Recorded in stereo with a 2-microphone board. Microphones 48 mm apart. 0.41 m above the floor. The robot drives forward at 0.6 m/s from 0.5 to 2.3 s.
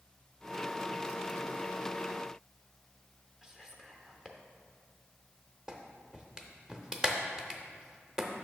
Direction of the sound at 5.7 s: 15° right (ahead or behind).